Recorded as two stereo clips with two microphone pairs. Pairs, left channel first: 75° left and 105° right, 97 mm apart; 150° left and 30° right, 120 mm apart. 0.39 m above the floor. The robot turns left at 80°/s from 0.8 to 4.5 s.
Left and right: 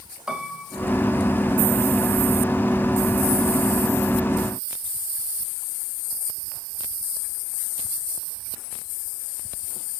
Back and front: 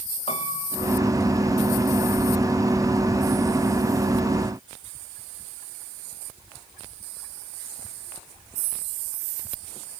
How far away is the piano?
About 1.4 m.